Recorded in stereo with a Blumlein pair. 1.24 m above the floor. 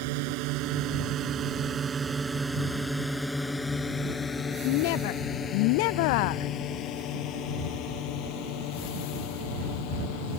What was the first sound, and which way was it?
A drone, 45° right.